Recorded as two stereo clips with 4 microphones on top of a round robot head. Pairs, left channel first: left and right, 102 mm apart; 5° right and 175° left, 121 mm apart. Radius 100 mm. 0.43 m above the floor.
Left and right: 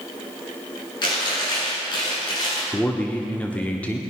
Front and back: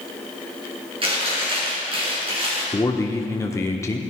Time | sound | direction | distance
1.0 | chewing | 135° left | 6.5 m
2.7 | a man speaking | 25° left | 1.2 m